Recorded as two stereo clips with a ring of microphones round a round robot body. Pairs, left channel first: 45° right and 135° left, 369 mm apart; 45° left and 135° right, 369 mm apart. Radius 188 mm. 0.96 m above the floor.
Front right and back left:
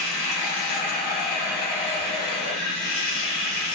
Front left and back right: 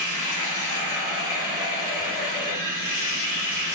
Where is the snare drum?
No snare drum in this recording.